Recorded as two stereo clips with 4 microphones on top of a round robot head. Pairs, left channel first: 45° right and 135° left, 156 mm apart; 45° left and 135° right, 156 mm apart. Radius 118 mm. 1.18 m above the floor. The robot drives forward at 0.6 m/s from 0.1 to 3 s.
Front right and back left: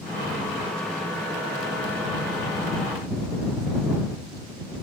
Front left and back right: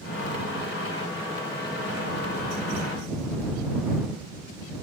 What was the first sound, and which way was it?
Only background noise.